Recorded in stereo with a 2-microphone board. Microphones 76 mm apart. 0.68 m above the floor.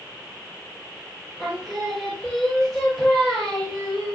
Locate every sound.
1.4 s singing: centre (ahead or behind), 1.0 m